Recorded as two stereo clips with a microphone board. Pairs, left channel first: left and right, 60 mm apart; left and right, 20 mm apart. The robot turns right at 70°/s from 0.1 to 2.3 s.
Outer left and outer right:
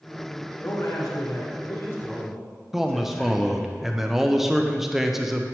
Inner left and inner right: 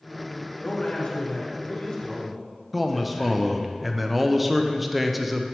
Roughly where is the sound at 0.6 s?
Ahead left.